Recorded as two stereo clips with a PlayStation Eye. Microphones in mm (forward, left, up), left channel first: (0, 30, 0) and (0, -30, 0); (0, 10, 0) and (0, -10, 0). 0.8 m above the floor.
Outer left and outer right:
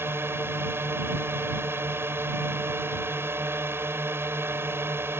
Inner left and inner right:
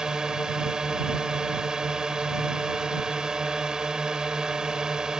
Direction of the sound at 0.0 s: 40° right (ahead or behind).